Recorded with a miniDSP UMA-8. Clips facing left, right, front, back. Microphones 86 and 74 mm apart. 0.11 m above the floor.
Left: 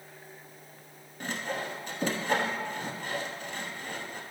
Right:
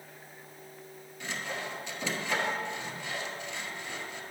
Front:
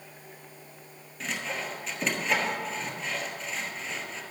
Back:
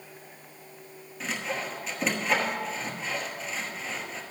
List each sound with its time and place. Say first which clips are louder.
1.2 s sawing: left 3 dB, back 1 dB; 95° left, 1.1 m